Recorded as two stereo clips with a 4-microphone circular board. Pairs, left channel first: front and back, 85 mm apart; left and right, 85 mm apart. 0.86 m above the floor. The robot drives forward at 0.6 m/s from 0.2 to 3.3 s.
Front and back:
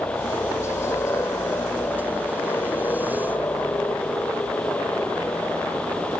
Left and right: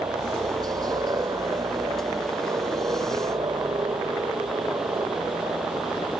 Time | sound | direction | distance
0.0 | a helicopter | 55° right | ?